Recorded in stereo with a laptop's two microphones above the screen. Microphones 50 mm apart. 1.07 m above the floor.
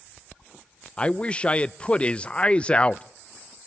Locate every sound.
1.0 s a man speaking: 25° left (ahead or behind), 0.5 m